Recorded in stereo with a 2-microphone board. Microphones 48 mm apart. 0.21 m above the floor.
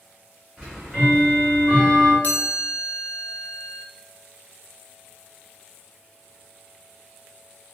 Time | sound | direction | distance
0.6 | ticking | 30° right (ahead or behind) | 1.8 m
2.2 | a chime | 30° left (ahead or behind) | 0.6 m